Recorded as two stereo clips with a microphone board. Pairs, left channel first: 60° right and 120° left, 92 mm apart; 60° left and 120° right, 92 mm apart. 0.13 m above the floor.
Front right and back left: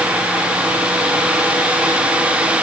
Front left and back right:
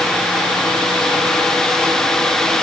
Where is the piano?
No piano in this recording.